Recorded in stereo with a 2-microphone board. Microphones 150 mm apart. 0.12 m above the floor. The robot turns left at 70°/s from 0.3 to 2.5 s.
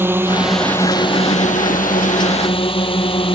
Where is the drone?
165° right; by 3.4 s 45° left.